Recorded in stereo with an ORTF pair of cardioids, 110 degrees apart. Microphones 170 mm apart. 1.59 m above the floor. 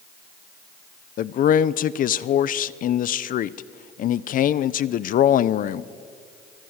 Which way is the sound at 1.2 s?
55° left.